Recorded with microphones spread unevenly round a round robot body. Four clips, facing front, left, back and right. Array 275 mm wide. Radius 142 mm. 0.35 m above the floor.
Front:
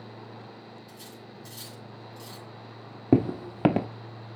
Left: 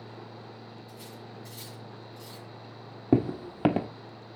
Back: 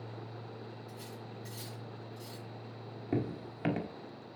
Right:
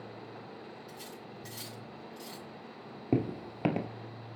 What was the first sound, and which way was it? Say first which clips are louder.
Cutlery clinking: left 1 dB, even; 75° right.